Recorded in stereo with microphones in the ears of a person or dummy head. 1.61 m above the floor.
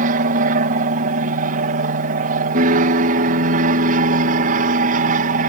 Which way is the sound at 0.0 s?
45° right (ahead or behind).